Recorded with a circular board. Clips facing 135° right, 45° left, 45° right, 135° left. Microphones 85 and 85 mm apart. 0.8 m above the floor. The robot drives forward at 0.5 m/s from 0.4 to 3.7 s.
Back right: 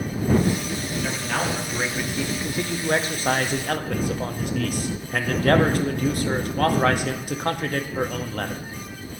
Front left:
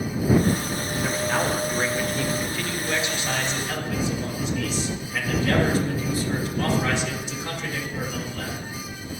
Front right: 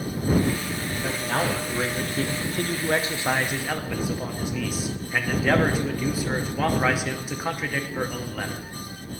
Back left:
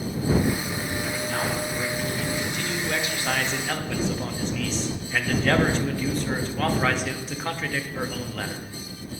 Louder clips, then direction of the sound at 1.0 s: Front left 3 dB, front right 5 dB; 30° right.